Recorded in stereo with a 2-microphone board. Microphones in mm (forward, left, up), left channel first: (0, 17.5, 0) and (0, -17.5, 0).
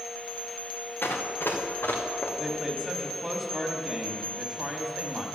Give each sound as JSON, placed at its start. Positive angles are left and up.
{"t": 1.0, "sound": "running footsteps", "side_deg": 70, "distance_m": 2.0}
{"t": 2.4, "sound": "a woman speaking", "side_deg": -10, "distance_m": 1.2}